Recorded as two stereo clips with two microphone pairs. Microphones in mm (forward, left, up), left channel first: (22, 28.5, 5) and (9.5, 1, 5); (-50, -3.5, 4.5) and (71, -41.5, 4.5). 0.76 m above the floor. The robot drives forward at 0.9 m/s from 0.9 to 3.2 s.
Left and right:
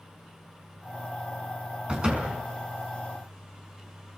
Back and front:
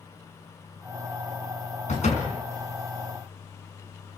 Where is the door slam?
175° right, 4.5 m.